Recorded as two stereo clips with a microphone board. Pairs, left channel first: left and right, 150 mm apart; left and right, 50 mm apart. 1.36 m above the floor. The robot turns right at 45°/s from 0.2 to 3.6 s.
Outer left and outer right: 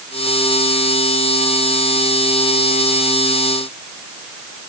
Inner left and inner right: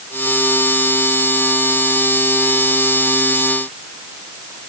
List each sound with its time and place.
Only background noise.